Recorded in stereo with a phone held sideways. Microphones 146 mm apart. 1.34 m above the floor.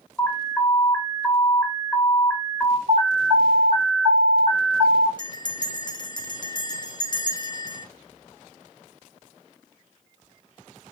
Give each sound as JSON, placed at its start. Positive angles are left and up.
{"t": 0.2, "sound": "an alarm", "side_deg": 10, "distance_m": 0.8}
{"t": 2.9, "sound": "an alarm", "side_deg": -50, "distance_m": 1.2}
{"t": 5.2, "sound": "a bell", "side_deg": 30, "distance_m": 0.6}